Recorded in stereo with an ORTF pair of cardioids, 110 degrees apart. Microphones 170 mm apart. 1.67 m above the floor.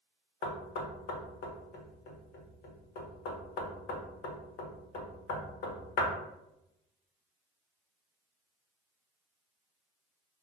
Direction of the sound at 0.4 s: 70° left.